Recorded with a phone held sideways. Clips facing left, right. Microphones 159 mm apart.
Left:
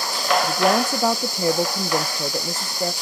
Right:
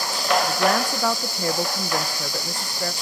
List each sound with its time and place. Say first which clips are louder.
0.4 s a woman speaking: left 2 dB; 20° left (ahead or behind), 0.7 m